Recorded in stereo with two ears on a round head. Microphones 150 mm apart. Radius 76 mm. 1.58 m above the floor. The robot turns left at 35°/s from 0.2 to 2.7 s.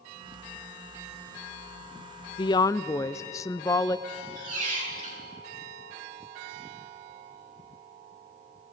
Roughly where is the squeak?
Right.